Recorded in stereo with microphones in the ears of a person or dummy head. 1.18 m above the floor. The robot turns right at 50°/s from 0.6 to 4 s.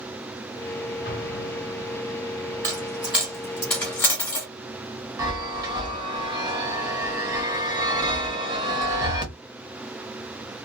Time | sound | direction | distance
1.1 | an explosion | 85° left | 0.8 m
2.6 | a dropped coin | 15° right (ahead or behind) | 1.2 m
5.2 | a chime | 25° right (ahead or behind) | 0.9 m